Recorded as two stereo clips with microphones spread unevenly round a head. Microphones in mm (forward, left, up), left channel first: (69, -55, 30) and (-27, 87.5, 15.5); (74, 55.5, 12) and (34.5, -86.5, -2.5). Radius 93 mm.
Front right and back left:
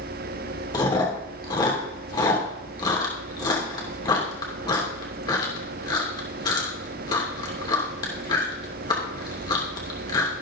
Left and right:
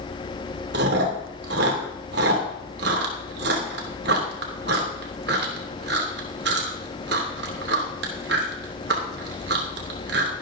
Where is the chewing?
125° right, 3 m.